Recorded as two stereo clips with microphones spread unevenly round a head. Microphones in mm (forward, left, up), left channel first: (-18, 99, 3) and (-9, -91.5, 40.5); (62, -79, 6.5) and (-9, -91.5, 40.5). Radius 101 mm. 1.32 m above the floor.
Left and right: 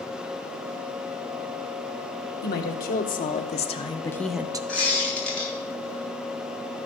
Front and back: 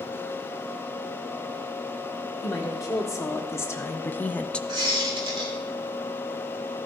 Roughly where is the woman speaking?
Ahead left.